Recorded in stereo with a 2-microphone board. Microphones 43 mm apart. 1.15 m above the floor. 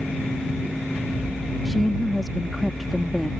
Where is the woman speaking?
Centre (ahead or behind).